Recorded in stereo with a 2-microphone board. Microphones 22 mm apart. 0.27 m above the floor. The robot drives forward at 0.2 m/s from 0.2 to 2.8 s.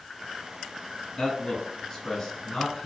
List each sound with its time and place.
1.2 s a man speaking: 40° left (ahead or behind), 1.7 m; by 2.9 s 35° left (ahead or behind), 1.9 m